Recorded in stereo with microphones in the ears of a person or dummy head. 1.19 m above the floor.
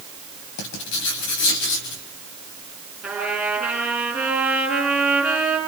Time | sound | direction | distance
0.6 | writing | 70° left (ahead or behind) | 4 m
3.0 | a trumpet | 5° right (ahead or behind) | 9 m